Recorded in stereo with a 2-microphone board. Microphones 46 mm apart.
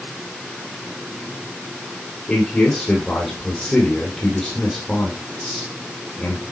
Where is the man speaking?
20° left (ahead or behind), 3 m.